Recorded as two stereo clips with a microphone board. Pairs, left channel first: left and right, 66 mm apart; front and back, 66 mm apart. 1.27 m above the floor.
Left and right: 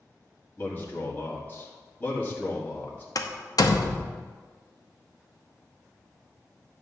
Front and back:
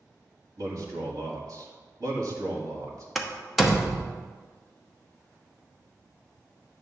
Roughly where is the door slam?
Left.